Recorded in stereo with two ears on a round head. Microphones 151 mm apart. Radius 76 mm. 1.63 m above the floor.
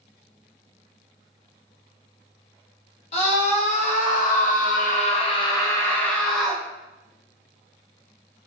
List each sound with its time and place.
3.1 s a scream: 40° left (ahead or behind), 1.2 m; by 6.6 s centre (ahead or behind), 1.0 m